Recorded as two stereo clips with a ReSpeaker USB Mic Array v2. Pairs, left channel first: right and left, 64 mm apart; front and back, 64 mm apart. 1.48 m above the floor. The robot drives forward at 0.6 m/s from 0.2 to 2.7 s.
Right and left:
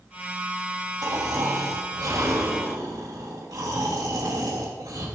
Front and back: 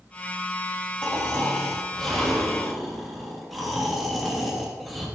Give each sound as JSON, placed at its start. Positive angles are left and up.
{"t": 1.0, "sound": "snoring", "azimuth_deg": 70, "distance_m": 3.5}